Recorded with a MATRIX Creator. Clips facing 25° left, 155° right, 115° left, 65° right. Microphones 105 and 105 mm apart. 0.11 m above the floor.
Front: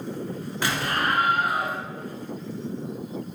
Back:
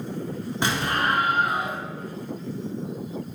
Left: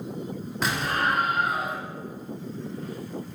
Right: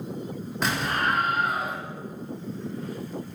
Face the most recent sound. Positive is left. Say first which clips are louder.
# back 1 dB, even
turn(degrees=-160)